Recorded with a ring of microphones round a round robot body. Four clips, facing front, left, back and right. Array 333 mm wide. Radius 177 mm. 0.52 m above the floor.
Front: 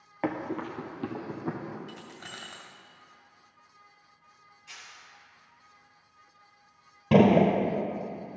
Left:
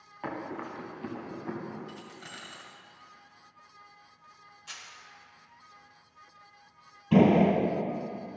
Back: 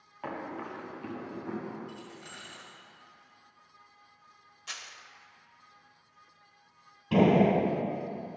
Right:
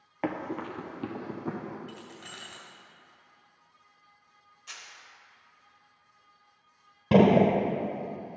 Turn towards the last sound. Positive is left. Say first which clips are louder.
# right 1 dB, front 3 dB
turn(degrees=-50)